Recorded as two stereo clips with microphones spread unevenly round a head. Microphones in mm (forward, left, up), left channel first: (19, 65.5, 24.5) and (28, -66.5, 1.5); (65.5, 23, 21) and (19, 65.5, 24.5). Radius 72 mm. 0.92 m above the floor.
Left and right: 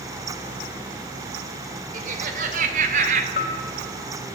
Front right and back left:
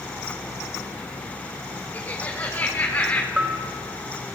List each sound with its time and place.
1.9 s laughter: 115° right, 3 m; by 3.3 s 120° right, 2.5 m
3.4 s a bell: 70° left, 3 m